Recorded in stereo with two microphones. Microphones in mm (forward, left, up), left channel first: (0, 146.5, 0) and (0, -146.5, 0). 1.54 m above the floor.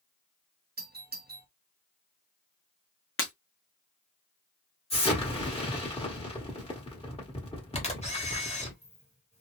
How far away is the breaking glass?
About 0.8 m.